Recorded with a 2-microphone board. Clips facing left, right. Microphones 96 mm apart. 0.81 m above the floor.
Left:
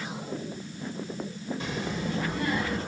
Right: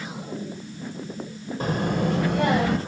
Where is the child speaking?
45° right (ahead or behind), 1.6 m; by 2.8 s 80° right, 2.5 m.